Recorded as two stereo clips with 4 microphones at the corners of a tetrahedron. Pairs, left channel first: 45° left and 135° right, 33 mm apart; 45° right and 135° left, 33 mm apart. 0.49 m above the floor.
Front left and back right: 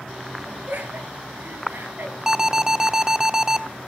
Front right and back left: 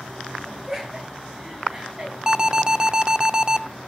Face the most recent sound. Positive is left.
turn(degrees=175)